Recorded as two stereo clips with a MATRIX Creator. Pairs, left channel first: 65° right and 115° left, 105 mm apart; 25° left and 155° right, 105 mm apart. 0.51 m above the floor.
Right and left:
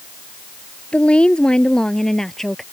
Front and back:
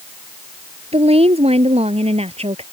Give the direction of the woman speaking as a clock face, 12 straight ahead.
5 o'clock.